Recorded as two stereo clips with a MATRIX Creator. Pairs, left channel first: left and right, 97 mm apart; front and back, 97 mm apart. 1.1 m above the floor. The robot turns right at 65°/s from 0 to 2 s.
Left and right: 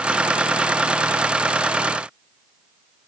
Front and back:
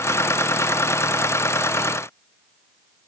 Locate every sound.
Only background noise.